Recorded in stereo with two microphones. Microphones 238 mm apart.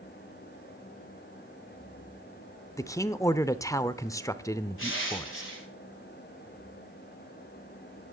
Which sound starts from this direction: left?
Crushing, at 4.8 s.